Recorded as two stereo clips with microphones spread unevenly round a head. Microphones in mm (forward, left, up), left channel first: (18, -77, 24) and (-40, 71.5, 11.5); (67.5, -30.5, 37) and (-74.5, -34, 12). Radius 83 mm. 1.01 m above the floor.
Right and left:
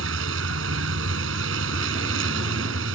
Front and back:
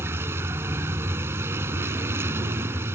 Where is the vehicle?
105° left.